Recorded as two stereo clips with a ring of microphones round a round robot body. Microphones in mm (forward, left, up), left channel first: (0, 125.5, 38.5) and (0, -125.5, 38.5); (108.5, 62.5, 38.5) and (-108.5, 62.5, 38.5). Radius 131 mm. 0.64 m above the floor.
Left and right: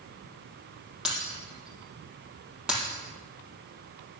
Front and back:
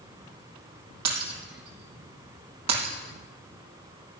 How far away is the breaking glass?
About 4.5 m.